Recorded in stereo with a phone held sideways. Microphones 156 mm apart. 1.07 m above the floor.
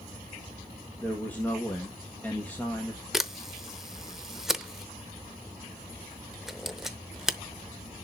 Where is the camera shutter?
5° right (ahead or behind), 0.8 m.